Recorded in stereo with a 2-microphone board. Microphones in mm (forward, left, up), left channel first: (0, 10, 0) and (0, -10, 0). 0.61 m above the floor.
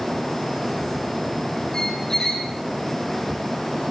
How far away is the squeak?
About 4.5 m.